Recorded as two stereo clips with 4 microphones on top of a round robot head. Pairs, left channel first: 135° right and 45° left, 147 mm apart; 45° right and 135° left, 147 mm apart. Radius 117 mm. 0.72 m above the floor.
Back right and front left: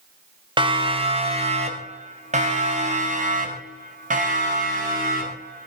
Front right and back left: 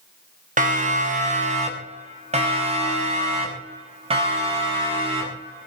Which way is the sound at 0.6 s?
105° left.